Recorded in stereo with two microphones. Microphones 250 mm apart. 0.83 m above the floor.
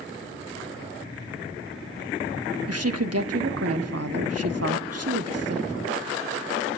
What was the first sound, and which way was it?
A woman speaking, 75° right (ahead or behind).